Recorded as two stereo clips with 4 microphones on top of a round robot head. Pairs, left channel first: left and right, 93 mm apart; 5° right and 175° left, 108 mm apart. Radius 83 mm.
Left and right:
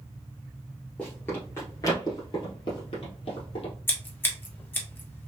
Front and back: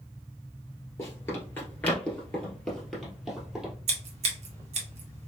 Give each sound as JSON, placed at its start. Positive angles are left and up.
{"t": 1.0, "sound": "running footsteps", "azimuth_deg": 10, "distance_m": 1.2}
{"t": 3.9, "sound": "scissors", "azimuth_deg": 155, "distance_m": 1.1}